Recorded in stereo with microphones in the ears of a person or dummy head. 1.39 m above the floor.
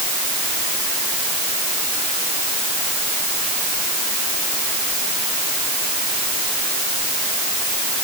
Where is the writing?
No writing in this recording.